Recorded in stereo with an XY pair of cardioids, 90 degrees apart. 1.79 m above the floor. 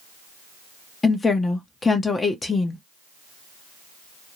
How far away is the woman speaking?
About 0.8 m.